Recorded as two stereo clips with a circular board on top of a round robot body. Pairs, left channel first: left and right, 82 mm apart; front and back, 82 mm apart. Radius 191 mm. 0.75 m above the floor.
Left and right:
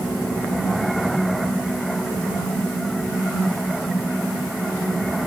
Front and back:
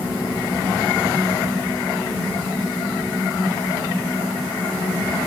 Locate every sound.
Only background noise.